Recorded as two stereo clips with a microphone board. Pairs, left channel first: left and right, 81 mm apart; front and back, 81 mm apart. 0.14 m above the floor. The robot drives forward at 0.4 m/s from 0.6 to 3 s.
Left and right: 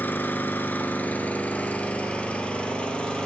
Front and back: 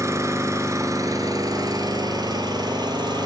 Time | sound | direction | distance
0.0 | an engine running | 150° left | 0.9 m